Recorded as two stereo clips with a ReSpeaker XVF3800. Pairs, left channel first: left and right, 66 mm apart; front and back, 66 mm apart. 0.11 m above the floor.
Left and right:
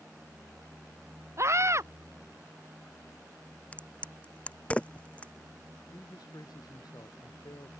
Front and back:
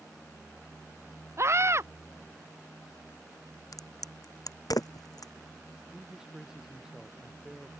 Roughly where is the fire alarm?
I don't hear a fire alarm.